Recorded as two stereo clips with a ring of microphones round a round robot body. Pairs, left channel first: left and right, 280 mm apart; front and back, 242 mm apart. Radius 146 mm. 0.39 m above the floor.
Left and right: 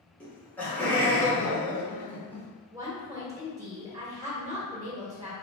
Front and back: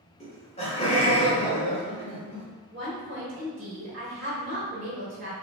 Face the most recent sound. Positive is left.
turn(degrees=-155)